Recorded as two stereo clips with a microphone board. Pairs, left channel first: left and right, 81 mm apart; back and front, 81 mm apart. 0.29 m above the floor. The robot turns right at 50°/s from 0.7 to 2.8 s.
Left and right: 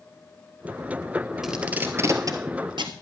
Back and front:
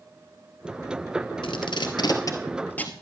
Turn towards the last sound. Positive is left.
turn(degrees=-110)